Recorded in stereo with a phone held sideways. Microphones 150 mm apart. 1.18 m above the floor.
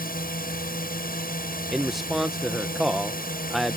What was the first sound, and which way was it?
A drone, 75° left (ahead or behind).